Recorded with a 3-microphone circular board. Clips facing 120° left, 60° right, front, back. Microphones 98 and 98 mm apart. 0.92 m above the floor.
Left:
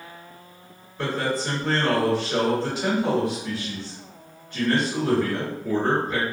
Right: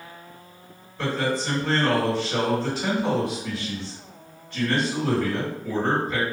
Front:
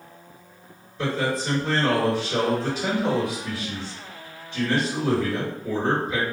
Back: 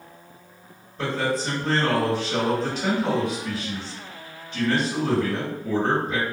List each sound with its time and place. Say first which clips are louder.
1.0 s a man speaking: even, even; 155° right, 1.5 m